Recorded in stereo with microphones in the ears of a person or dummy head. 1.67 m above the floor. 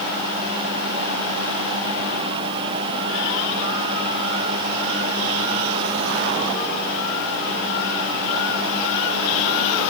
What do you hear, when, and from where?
Only background noise.